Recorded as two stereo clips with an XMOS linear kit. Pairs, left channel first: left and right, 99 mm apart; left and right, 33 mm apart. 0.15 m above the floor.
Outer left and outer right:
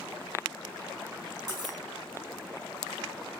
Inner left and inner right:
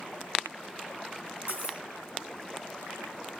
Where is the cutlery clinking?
45° right (ahead or behind), 0.8 m.